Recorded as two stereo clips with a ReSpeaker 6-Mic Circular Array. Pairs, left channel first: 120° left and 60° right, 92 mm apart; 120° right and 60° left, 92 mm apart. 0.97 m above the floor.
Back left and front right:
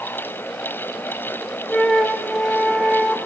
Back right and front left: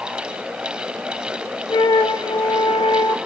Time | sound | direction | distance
1.7 | a flute | 155° right | 0.7 m